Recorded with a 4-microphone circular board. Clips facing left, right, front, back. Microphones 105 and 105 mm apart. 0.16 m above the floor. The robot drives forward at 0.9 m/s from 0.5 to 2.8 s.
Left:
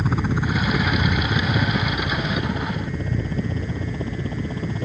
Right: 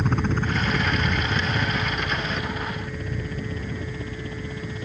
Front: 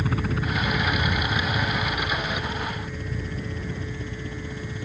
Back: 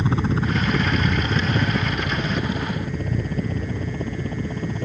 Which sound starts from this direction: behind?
A helicopter, at 0.0 s.